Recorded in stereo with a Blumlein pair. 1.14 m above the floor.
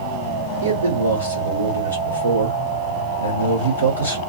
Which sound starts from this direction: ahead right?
A man speaking, at 0.6 s.